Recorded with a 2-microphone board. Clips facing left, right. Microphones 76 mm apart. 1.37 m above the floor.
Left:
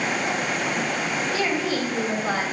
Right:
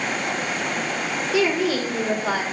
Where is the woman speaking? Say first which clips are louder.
Right 7 dB; 90° right, 3 m.